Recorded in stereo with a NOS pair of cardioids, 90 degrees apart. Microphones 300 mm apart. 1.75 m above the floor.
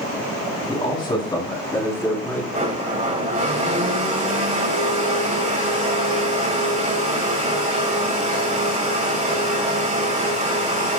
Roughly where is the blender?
Ahead right.